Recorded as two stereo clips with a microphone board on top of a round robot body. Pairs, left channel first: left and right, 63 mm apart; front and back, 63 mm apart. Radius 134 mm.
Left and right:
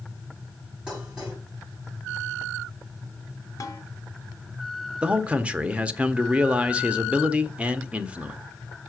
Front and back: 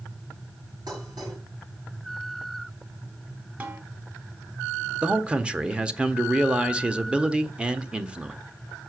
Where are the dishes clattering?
165° right, 6.5 m.